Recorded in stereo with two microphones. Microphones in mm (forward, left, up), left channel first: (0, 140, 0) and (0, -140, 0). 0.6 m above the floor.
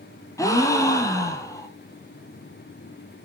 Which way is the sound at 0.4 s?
10° left (ahead or behind).